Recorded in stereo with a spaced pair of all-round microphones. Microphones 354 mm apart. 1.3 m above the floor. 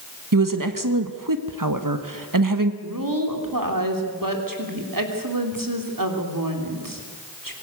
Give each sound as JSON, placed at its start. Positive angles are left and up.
{"t": 0.3, "sound": "a woman speaking", "side_deg": -60, "distance_m": 1.3}
{"t": 2.8, "sound": "a woman speaking", "side_deg": -60, "distance_m": 3.5}